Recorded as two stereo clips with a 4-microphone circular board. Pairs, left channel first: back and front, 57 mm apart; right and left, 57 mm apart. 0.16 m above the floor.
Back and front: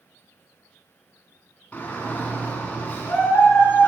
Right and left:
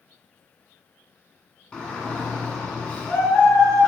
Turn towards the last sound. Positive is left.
turn(degrees=-155)